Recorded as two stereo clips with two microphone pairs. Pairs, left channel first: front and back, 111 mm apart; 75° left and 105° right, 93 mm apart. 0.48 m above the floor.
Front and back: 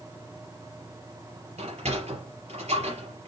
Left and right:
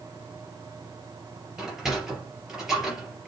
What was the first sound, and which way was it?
A sliding door, 170° left.